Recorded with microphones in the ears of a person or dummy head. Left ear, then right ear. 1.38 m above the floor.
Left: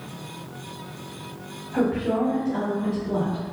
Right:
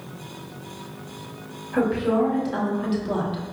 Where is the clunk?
No clunk in this recording.